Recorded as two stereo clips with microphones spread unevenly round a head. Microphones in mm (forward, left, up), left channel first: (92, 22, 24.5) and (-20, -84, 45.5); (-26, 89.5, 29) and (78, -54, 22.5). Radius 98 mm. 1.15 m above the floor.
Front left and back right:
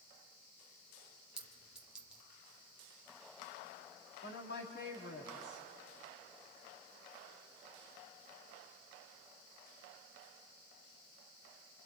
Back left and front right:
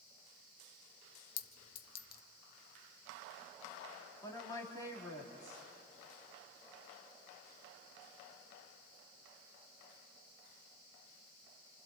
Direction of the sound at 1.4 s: 145° left.